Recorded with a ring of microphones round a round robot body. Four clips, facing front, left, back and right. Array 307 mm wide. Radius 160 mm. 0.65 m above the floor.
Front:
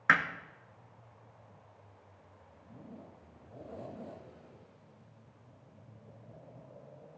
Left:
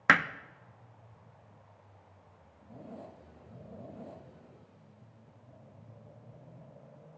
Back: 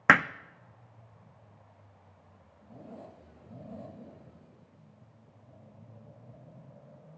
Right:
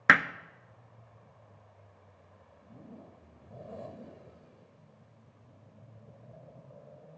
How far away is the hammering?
About 0.6 m.